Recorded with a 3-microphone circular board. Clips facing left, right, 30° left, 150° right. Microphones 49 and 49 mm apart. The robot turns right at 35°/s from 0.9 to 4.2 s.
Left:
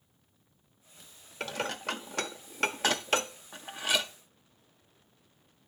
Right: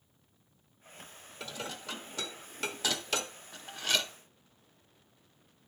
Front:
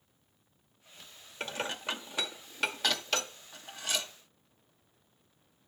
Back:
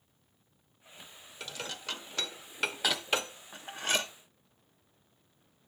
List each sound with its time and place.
1.4 s dishes clattering: 80° left, 0.7 m; by 4.1 s 170° left, 0.7 m